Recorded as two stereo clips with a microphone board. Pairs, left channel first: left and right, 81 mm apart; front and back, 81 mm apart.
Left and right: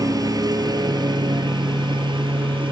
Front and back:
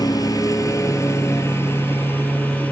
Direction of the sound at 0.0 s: 45° right.